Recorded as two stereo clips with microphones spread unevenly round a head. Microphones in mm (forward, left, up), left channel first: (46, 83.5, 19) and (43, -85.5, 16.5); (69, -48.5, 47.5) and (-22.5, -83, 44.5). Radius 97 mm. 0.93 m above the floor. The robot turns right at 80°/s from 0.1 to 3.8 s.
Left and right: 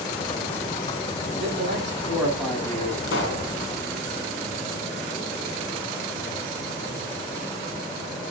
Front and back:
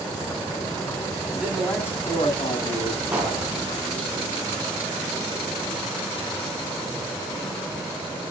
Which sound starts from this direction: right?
A man speaking, at 1.3 s.